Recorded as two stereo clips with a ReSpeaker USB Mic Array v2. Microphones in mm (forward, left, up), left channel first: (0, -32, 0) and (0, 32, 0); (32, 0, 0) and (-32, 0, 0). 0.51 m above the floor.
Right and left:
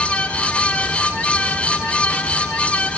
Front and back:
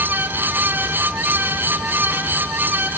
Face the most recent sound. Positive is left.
No sound to turn to.